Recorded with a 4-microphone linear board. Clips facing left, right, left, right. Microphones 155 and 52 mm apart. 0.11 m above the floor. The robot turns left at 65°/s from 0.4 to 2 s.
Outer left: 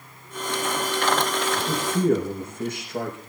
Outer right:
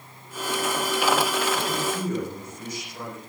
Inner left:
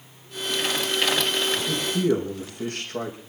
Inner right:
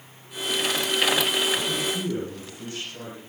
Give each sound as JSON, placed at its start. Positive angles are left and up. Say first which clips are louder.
{"t": 1.5, "sound": "a man speaking", "louder": "outer left 2 dB, inner left 1 dB", "azimuth_deg": 140, "distance_m": 5.0}